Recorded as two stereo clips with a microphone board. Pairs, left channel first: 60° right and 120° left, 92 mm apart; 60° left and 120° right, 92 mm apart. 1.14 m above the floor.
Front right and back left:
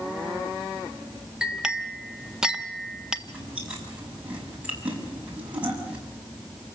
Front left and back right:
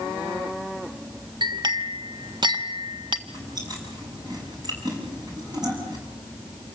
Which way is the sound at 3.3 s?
165° right.